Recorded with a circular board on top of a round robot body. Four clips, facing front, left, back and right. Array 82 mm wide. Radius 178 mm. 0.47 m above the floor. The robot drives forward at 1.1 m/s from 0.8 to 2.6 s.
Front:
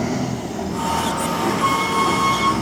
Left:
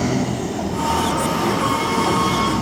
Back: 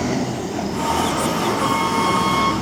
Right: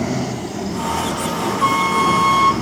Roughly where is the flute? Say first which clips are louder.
Right 3 dB, front 1 dB; right.